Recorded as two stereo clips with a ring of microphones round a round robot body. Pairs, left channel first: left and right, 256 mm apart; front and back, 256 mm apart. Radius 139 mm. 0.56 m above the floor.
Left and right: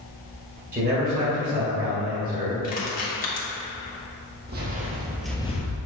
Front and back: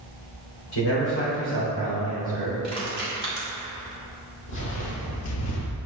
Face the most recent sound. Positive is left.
turn(degrees=50)